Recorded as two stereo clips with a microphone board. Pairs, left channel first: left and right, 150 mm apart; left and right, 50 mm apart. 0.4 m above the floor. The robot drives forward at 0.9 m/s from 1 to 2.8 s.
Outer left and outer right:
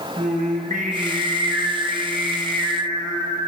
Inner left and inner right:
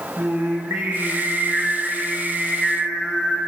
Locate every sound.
0.2 s singing: 60° right (ahead or behind), 0.5 m; by 3.4 s 15° right (ahead or behind), 1.9 m